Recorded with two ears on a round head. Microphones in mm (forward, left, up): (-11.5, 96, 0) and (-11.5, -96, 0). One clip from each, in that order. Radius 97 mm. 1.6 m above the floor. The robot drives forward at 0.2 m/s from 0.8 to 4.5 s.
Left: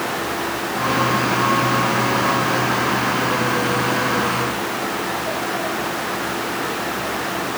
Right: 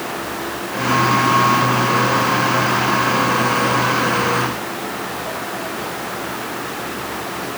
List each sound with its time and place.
Only background noise.